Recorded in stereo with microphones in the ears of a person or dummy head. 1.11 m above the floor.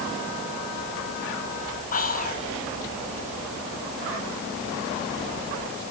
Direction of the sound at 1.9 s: 40° left (ahead or behind).